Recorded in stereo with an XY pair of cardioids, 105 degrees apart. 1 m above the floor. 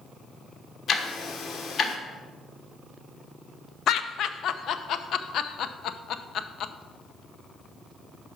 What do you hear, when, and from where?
0.9 s ticking: 55° left, 1.2 m
3.9 s laughter: 65° left, 0.6 m